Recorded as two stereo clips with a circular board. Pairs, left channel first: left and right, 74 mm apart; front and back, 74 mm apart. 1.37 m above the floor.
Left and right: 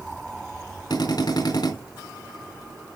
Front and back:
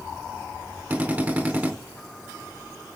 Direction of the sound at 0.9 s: 110° left.